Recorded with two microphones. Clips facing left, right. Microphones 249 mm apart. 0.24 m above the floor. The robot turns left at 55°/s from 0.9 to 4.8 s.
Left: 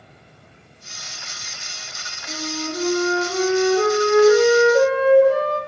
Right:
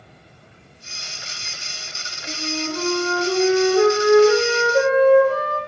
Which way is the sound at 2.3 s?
55° right.